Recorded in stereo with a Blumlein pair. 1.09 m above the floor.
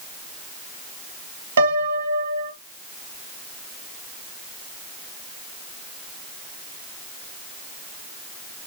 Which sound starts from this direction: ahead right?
A piano, at 1.6 s.